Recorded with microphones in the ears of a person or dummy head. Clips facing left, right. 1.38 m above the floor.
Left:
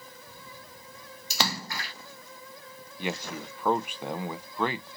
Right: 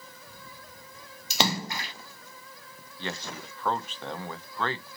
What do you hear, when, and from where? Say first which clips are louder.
1.3 s a splash: right 4 dB; 20° right (ahead or behind), 0.5 m
3.0 s a man speaking: left 3 dB; 20° left (ahead or behind), 0.5 m